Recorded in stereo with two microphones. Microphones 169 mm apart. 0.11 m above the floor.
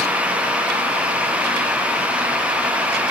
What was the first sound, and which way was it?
Only background noise.